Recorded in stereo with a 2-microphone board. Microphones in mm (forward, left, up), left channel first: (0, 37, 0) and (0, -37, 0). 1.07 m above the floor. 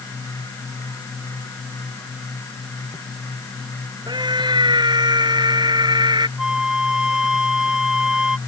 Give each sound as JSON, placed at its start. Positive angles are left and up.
{"t": 4.1, "sound": "a scream", "side_deg": -85}
{"t": 6.4, "sound": "a flute", "side_deg": -10}